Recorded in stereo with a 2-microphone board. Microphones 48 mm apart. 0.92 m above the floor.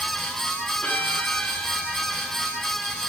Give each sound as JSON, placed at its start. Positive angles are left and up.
{"t": 0.8, "sound": "a violin", "side_deg": 30, "distance_m": 6.0}